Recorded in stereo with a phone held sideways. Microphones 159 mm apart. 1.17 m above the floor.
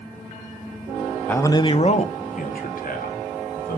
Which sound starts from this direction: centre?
A man speaking, at 1.3 s.